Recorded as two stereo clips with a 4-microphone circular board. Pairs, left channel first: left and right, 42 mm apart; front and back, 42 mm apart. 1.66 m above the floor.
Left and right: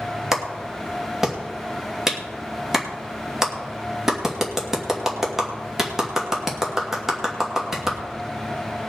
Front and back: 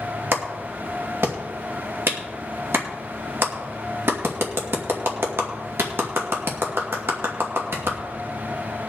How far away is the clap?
About 2 m.